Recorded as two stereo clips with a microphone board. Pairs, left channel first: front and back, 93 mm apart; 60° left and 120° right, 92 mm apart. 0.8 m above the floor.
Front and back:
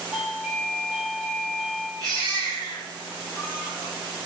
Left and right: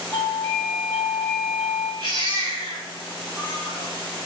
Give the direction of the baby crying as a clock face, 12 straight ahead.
5 o'clock.